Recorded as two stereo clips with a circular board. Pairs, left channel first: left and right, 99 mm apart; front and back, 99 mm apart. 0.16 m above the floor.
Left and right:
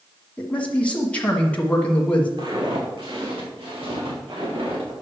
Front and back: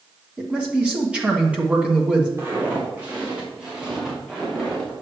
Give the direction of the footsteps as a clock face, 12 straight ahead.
4 o'clock.